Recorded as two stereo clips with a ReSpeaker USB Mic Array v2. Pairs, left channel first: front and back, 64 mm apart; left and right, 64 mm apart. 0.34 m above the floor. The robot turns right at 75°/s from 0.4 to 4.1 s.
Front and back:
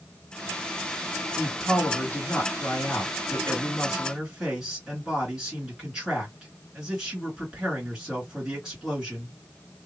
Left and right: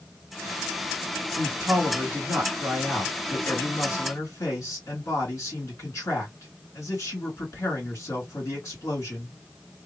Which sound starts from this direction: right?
A man speaking, at 1.4 s.